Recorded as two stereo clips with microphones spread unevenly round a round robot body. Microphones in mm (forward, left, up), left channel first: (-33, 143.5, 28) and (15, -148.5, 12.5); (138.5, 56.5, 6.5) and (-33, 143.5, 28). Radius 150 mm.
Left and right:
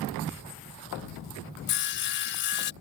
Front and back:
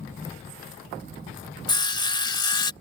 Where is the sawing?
45° left.